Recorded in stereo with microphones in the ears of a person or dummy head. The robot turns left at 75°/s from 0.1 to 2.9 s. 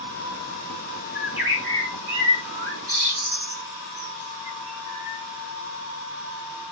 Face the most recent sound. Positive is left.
turn(degrees=-50)  # may be behind; listen again after turning